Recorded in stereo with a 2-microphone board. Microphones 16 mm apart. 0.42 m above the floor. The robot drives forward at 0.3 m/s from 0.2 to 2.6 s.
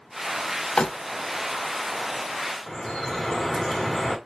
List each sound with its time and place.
0.8 s crumpling: 75° left (ahead or behind), 0.5 m
2.7 s dripping: 35° left (ahead or behind), 1.1 m